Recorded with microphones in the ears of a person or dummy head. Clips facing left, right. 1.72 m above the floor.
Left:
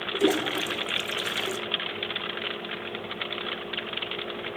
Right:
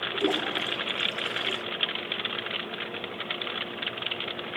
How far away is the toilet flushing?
About 0.5 m.